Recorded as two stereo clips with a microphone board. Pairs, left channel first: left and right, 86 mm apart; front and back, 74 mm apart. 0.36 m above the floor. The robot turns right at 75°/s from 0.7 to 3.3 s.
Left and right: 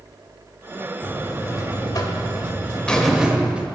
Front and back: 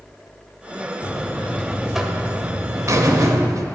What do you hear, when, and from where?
1.0 s a buzzer: 25° left, 0.5 m; by 3.6 s 165° right, 0.5 m